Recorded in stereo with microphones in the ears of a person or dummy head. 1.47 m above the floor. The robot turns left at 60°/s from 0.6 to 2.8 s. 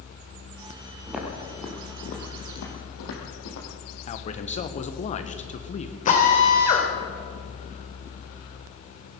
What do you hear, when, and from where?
1.1 s footsteps: 15° right (ahead or behind), 2.5 m; by 3.7 s 65° left (ahead or behind), 3.5 m
4.1 s a man speaking: 30° left (ahead or behind), 1.4 m
6.0 s a drill: 35° left (ahead or behind), 2.5 m